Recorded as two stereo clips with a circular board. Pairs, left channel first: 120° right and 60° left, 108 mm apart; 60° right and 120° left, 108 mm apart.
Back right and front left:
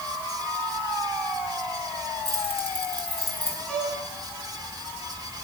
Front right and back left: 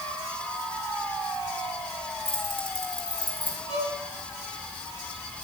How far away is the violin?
About 5.5 m.